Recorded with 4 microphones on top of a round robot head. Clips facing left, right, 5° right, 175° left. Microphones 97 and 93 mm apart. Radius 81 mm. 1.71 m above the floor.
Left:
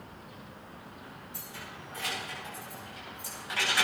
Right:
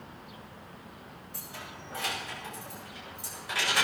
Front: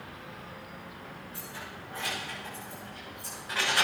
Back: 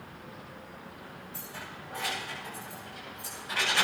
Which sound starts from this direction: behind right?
Keys jangling, at 1.3 s.